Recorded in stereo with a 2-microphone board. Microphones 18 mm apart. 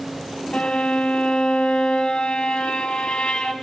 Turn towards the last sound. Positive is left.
turn(degrees=60)  # may be behind; listen again after turning